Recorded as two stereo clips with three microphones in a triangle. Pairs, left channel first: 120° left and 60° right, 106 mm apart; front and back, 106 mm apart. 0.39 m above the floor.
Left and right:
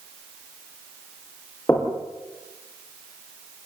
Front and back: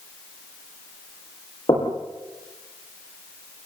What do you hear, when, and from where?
1.7 s knocking: 50° left, 6.5 m